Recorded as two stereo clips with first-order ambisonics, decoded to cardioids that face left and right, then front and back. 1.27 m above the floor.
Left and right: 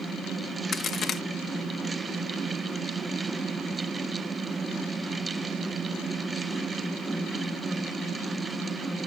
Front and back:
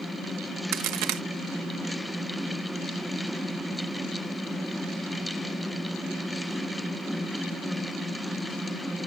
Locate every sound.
0.7 s a crack: 150° left